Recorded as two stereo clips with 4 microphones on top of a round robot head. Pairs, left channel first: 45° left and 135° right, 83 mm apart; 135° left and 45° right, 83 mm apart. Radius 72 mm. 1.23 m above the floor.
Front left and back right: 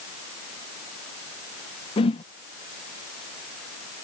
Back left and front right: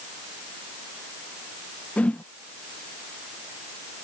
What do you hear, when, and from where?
2.0 s a whoosh: 60° left